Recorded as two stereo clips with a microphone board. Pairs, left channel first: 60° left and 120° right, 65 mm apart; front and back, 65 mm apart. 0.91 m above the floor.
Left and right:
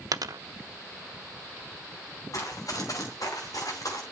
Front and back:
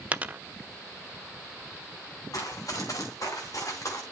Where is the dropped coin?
115° right, 0.8 m.